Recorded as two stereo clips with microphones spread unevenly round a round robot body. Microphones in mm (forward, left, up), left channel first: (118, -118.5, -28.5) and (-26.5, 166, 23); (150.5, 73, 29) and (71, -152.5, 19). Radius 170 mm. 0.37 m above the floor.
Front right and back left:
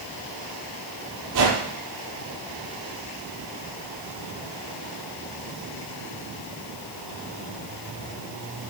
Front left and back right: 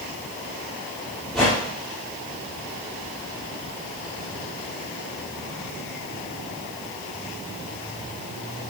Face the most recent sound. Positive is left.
turn(degrees=160)